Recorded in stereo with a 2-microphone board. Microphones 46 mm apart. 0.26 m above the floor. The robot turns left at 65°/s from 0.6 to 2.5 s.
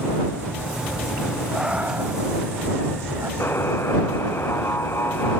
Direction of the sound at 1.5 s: 10° right (ahead or behind).